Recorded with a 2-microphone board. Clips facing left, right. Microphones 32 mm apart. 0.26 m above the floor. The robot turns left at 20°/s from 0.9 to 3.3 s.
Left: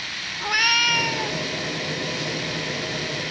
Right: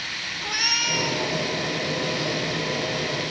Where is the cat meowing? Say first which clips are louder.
Left 6 dB; 30° left (ahead or behind), 1.3 m; by 1.4 s 20° left (ahead or behind), 1.3 m.